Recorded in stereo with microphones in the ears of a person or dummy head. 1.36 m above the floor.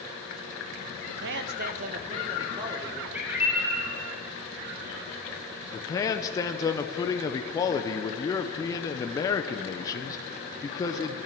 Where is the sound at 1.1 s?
75° right (ahead or behind), 0.7 m; by 3.0 s 20° right (ahead or behind), 1.6 m.